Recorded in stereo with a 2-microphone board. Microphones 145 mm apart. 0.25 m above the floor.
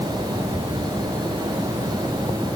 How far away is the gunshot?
No gunshot in this recording.